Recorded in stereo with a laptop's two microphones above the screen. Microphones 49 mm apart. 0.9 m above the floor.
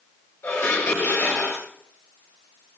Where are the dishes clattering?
75° left (ahead or behind), 2 m.